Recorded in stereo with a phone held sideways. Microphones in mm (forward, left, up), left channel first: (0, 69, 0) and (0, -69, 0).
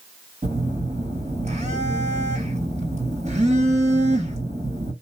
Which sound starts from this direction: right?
A phone buzzing, at 0.4 s.